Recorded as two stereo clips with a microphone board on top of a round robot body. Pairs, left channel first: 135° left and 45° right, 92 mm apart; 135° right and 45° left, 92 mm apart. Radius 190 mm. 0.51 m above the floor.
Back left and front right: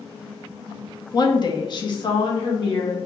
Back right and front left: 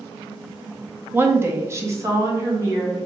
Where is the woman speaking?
110° left, 0.9 m; by 3.0 s 100° left, 1.7 m.